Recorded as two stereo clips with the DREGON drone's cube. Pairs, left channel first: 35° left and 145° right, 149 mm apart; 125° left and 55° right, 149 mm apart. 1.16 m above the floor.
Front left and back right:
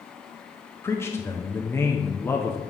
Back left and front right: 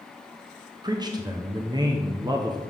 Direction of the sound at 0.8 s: 25° right.